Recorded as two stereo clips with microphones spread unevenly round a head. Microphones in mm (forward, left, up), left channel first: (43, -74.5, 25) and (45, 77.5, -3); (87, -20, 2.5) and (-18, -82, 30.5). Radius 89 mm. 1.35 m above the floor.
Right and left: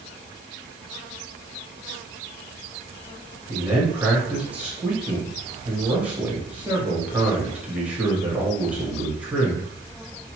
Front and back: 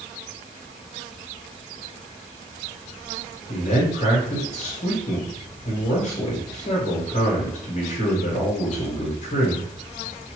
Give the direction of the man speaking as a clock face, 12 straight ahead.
12 o'clock.